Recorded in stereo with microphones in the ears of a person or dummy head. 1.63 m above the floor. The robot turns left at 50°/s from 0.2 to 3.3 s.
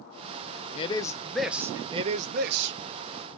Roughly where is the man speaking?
Ahead left.